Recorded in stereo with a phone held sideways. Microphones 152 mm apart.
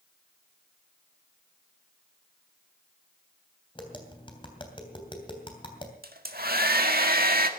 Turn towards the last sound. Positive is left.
turn(degrees=-85)